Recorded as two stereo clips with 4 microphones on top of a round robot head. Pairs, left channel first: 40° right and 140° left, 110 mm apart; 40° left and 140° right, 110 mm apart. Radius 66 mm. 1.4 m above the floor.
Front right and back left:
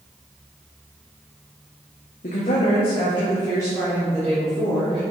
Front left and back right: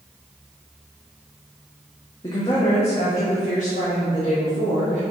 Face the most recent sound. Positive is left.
turn(degrees=40)